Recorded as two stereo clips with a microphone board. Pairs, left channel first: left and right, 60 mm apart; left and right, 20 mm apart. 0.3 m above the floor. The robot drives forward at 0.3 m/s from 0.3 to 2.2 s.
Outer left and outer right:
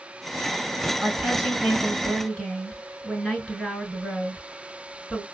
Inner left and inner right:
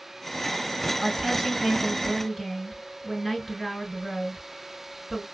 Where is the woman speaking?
5° right (ahead or behind), 3 m.